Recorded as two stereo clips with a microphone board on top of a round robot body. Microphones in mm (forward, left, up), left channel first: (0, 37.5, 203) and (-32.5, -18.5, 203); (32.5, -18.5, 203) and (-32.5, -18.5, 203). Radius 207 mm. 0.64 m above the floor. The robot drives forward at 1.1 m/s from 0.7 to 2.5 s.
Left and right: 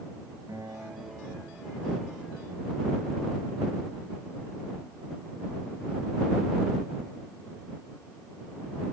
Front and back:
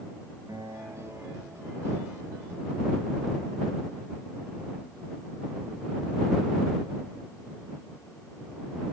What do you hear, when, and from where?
0.5 s a guitar: 150° right, 3.5 m; by 2.2 s 160° right, 5 m